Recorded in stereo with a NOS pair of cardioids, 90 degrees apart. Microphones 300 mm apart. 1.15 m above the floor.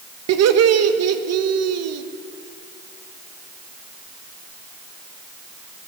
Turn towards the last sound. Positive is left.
turn(degrees=-65)